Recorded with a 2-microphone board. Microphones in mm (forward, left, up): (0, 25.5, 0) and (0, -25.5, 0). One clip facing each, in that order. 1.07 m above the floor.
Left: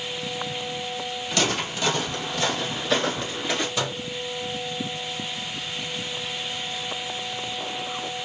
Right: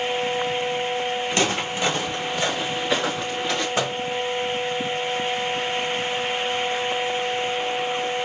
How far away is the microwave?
About 1.1 m.